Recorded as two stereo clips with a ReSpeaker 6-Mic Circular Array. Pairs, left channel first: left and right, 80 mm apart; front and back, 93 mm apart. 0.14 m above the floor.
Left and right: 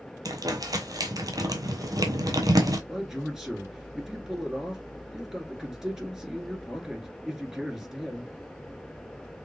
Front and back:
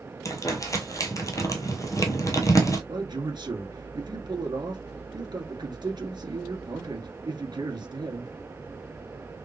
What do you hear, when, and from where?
0.2 s crumpling: 55° right, 1.1 m
2.9 s a man speaking: 170° right, 1.6 m